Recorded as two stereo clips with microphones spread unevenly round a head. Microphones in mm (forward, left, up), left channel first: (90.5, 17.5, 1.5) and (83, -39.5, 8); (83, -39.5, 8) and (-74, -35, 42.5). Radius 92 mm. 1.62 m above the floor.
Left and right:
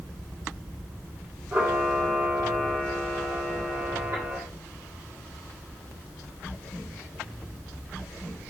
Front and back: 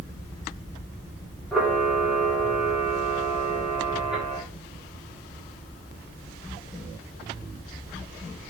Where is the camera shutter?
100° right, 1.7 m.